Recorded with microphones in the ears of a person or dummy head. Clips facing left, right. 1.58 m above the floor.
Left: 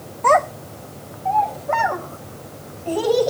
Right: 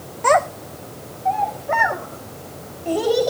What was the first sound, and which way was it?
A child speaking, 15° right (ahead or behind).